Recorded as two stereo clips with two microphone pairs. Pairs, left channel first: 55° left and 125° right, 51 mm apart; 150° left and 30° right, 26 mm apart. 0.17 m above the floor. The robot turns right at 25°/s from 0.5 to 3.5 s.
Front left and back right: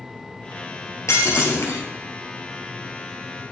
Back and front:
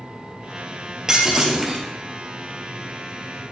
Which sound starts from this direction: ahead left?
Breaking glass, at 1.1 s.